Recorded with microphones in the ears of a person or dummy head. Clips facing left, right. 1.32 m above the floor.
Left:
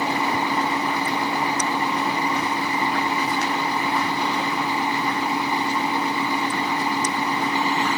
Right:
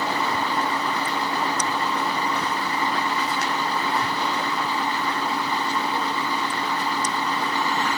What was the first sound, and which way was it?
A fan, 15° left (ahead or behind).